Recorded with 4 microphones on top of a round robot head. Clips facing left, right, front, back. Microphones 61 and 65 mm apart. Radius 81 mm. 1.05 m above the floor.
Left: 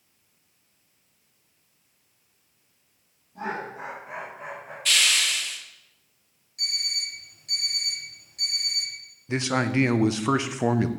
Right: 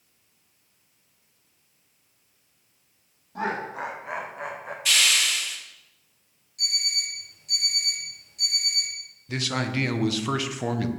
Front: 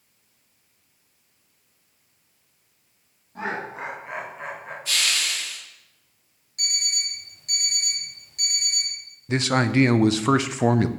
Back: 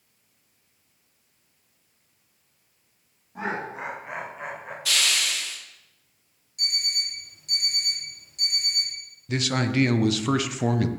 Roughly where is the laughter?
Right.